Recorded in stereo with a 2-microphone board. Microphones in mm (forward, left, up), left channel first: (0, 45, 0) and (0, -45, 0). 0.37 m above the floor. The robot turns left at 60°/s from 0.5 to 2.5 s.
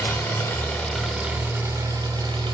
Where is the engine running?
30° left, 1.4 m; by 2.5 s 90° right, 1.4 m.